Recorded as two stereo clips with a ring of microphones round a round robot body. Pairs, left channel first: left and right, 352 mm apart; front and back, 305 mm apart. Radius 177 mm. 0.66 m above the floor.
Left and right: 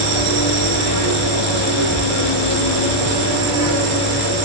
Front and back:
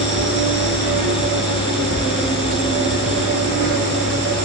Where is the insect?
115° right, 1.3 m.